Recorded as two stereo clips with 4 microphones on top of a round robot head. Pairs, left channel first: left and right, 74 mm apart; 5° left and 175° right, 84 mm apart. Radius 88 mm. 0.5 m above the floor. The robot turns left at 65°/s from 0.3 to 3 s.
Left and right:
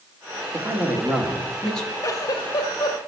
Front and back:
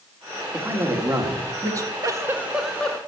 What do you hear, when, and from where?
0.5 s a man speaking: 115° right, 1.8 m; by 1.9 s 160° left, 1.8 m
2.0 s a giggle: 135° left, 1.1 m; by 3.0 s 75° left, 1.1 m